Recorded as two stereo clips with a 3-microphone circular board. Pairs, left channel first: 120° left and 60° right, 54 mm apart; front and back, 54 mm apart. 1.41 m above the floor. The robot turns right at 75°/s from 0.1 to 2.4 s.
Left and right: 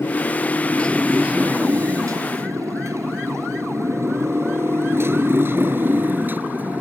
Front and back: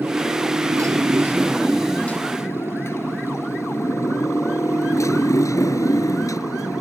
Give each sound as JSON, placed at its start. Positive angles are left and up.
{"t": 0.0, "sound": "a motorcycle", "azimuth_deg": 135}